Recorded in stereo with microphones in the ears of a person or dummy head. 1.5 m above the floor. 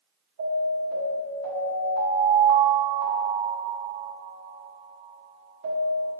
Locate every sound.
0.4 s an alarm: 65° right (ahead or behind), 1.9 m